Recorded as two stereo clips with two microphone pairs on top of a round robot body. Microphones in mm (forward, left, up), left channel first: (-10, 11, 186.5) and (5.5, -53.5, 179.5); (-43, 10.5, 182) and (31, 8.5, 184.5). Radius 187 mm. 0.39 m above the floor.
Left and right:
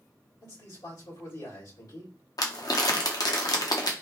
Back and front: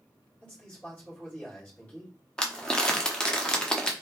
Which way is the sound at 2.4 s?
105° left.